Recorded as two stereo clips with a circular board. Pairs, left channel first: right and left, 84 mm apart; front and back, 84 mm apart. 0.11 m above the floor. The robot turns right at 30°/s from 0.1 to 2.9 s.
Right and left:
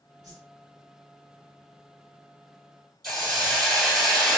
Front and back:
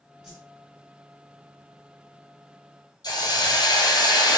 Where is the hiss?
5° right, 1.3 m.